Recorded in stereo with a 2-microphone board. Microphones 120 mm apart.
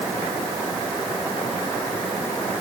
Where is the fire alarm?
No fire alarm in this recording.